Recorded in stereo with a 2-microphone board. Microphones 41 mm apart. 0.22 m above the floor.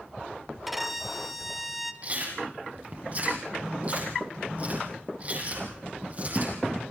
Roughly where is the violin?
Centre.